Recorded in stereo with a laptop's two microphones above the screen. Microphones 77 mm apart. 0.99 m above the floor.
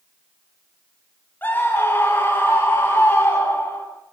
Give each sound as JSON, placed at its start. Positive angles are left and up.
{"t": 1.4, "sound": "a scream", "side_deg": 25, "distance_m": 7.5}